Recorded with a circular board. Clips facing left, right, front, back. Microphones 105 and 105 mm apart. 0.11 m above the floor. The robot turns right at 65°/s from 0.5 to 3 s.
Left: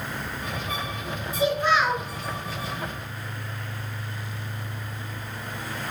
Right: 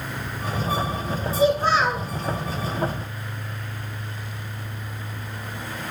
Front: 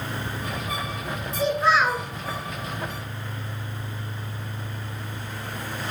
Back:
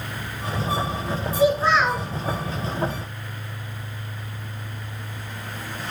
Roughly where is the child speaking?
Right.